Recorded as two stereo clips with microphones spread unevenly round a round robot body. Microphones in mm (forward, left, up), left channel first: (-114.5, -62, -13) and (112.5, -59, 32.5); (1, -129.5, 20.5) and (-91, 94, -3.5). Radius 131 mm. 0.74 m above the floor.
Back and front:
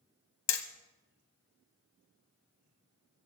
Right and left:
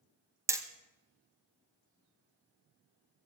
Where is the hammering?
170° right, 1.5 m.